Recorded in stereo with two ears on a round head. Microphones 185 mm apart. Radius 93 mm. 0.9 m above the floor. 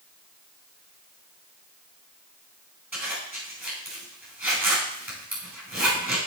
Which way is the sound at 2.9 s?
10° right (ahead or behind).